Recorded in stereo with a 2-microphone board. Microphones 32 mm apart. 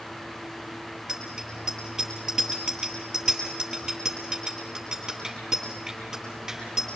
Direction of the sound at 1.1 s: 25° right (ahead or behind).